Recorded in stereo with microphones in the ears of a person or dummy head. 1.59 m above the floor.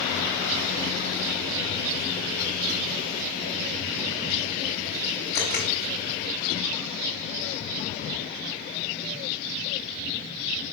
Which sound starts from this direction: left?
A camera shutter, at 5.3 s.